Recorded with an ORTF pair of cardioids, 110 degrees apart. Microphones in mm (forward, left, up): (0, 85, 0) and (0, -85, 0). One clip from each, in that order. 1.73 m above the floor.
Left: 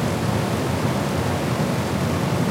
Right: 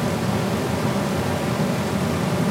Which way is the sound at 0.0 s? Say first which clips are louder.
Even; 5° left.